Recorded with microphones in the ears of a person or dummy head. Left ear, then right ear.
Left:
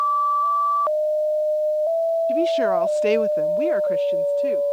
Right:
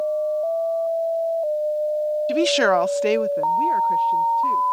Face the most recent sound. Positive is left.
turn(degrees=30)  # may be behind; listen again after turning